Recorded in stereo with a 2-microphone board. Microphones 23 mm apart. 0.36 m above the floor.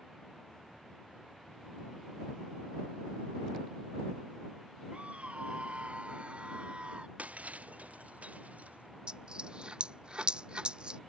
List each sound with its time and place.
4.9 s a scream: 70° right (ahead or behind); by 7.1 s 60° right (ahead or behind)
7.2 s breaking glass: 90° right
9.1 s a dropped coin: 35° right (ahead or behind)